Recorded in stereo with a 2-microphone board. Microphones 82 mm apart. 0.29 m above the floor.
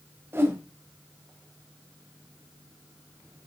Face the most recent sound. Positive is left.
turn(degrees=-30)  # may be behind; listen again after turning